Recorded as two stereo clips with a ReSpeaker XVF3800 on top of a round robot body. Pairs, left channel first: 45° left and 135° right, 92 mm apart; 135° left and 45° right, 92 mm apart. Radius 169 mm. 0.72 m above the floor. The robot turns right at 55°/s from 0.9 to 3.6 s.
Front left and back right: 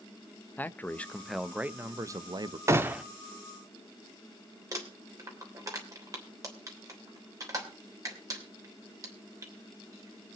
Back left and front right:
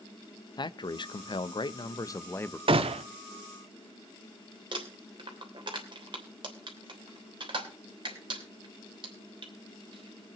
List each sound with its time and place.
0.6 s a man speaking: 110° left, 0.8 m; by 2.6 s 155° right, 0.8 m
2.7 s a gunshot: 75° right, 0.6 m; by 3.0 s 55° right, 0.6 m
4.7 s crumpling: 80° right, 3 m